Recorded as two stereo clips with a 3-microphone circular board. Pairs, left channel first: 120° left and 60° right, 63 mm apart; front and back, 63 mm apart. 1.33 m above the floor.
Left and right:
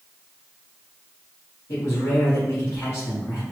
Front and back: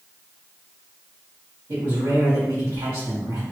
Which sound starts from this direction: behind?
A man speaking, at 1.7 s.